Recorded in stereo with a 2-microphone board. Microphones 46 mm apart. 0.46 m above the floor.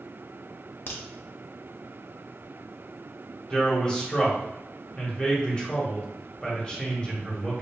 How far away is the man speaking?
About 1.6 m.